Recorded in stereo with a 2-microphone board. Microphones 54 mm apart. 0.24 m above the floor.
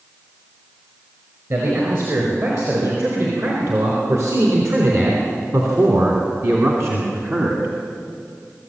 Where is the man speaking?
60° right (ahead or behind), 5 m; by 7.7 s 50° right (ahead or behind), 2.5 m.